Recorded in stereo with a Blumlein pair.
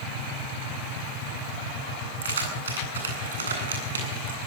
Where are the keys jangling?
65° right, 9 m.